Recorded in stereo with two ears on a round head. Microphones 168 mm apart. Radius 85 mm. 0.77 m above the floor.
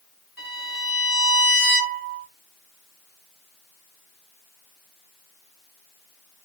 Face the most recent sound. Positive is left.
turn(degrees=0)  # may be behind; listen again after turning